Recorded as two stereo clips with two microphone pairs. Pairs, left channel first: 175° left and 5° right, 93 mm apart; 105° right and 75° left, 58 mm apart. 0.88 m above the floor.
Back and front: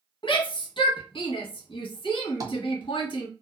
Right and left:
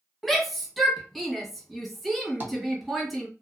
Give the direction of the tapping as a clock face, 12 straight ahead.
11 o'clock.